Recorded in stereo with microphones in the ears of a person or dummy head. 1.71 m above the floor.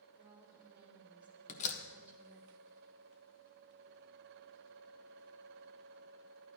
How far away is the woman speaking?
About 3.5 m.